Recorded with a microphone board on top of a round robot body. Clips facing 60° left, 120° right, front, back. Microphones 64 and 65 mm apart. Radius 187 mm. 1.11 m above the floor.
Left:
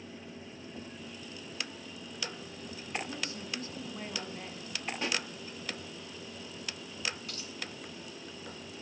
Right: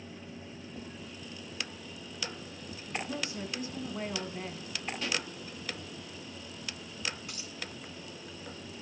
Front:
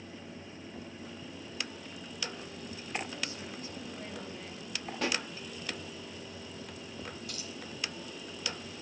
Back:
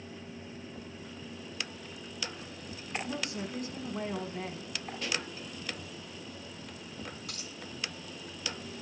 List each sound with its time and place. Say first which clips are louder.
3.0 s a woman speaking: right 3 dB, back 4 dB; 170° left, 4.5 m
5.0 s a pop: left 1 dB, front 3 dB; 5° left, 1.8 m
7.3 s a dropped coin: left 1 dB, front 1 dB; 170° left, 3 m